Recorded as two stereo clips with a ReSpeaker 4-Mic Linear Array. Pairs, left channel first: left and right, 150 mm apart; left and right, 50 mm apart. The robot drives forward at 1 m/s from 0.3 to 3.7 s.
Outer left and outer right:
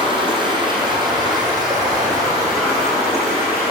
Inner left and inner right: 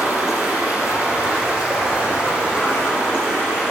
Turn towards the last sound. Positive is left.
turn(degrees=-20)  # may be behind; listen again after turning